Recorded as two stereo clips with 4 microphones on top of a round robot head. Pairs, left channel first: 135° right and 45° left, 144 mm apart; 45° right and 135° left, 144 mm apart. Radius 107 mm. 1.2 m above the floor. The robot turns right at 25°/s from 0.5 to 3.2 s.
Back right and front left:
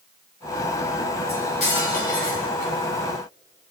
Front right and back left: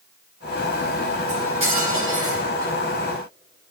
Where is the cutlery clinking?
175° left, 3.5 m; by 2.7 s 150° right, 3.5 m.